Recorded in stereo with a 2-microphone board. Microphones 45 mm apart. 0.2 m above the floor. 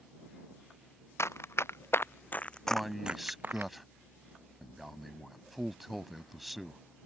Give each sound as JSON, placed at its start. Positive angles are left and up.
{"t": 1.2, "sound": "running footsteps", "side_deg": 70}
{"t": 2.7, "sound": "a man speaking", "side_deg": 0}